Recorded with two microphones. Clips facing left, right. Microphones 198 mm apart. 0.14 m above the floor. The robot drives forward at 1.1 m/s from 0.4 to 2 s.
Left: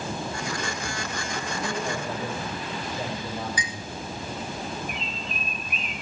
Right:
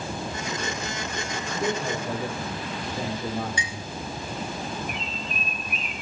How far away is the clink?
About 1.2 m.